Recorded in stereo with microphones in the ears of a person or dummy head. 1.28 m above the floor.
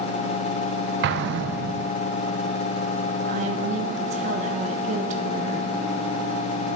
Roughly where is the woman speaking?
Right.